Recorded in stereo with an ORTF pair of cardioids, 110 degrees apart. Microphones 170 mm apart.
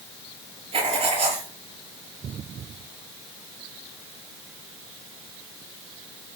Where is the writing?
35° right, 6 m.